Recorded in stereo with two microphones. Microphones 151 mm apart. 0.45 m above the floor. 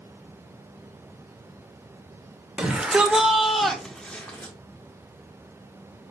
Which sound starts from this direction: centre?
A shout, at 2.6 s.